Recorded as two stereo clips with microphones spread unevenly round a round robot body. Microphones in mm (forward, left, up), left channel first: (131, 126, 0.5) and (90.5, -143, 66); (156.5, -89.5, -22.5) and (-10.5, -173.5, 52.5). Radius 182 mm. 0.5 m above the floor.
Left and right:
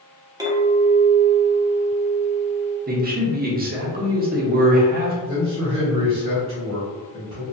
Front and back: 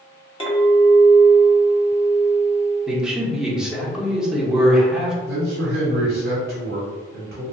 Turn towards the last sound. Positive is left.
turn(degrees=-175)